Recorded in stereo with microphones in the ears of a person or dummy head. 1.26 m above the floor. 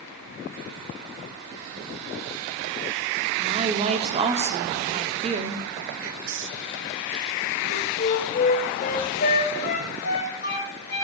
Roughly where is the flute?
Left.